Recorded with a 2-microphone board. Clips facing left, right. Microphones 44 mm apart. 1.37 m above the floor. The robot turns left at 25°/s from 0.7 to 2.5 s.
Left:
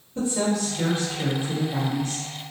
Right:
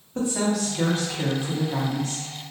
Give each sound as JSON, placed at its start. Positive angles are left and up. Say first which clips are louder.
{"t": 0.1, "sound": "a woman speaking", "louder": "even", "azimuth_deg": -60, "distance_m": 1.2}